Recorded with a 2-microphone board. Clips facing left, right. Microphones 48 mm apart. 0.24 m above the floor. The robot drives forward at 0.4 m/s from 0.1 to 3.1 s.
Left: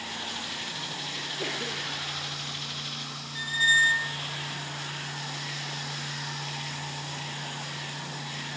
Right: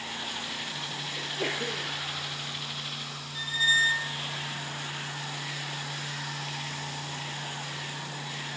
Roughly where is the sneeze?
Centre.